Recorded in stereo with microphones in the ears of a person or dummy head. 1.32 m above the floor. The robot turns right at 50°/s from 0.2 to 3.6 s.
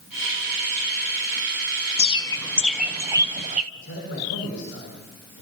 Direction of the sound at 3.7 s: 75° left (ahead or behind).